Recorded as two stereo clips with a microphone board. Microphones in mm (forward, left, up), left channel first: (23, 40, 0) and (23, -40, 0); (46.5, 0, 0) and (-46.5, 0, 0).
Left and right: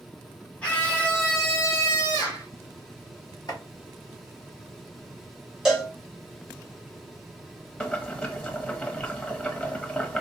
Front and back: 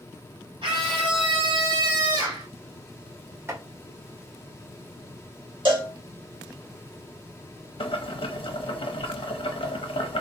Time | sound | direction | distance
0.6 | a scream | 160° left | 2.5 m
3.5 | chopping | 120° left | 1.7 m
5.7 | a cowbell | 175° right | 1.4 m
7.8 | boiling | 15° left | 0.7 m